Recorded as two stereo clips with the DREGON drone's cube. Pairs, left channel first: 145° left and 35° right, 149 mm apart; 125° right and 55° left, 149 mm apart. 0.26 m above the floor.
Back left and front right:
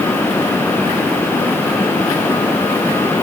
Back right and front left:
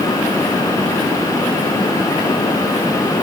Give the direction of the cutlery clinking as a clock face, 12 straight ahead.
I don't hear cutlery clinking.